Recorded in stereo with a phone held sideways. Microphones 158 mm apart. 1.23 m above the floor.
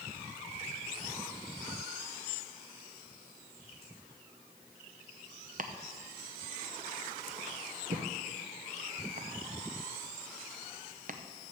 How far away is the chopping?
About 0.7 m.